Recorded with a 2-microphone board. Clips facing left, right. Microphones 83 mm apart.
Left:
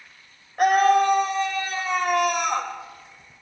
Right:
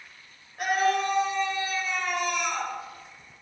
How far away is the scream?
About 3 m.